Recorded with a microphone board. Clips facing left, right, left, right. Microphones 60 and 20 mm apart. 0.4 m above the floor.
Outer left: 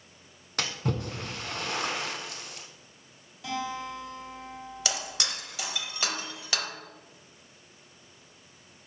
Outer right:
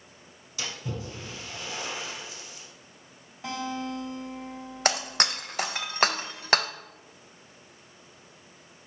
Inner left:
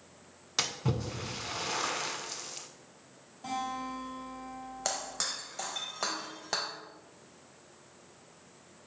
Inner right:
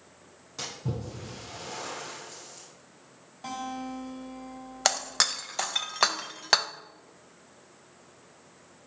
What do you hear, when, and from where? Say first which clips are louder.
0.6 s a splash: outer left 4 dB, inner left 4 dB; 60° left (ahead or behind), 0.8 m
3.4 s a guitar: outer right 1 dB, even; 30° right (ahead or behind), 2 m
4.8 s breaking glass: outer right 8 dB, inner right 9 dB; 50° right (ahead or behind), 0.5 m